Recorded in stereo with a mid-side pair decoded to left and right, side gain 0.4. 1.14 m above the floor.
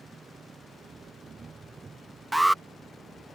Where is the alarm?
Straight ahead.